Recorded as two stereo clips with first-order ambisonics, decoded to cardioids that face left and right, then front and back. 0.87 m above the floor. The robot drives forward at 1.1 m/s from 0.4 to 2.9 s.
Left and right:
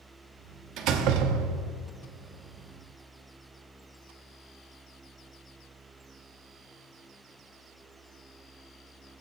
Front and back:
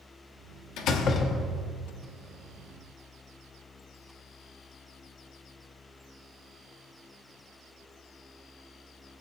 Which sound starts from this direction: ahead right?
A door slam, at 0.8 s.